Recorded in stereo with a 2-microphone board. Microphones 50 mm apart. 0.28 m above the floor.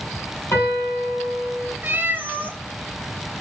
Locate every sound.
0.5 s a piano: 65° left (ahead or behind), 3.5 m
1.8 s a cat meowing: 40° right (ahead or behind), 0.8 m